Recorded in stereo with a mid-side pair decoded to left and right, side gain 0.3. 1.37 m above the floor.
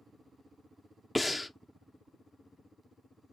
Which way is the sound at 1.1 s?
25° left.